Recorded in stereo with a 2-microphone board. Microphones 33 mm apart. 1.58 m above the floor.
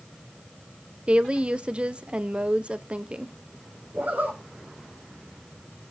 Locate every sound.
1.1 s a woman speaking: 35° right (ahead or behind), 0.9 m
3.9 s a zipper: 55° right (ahead or behind), 6.5 m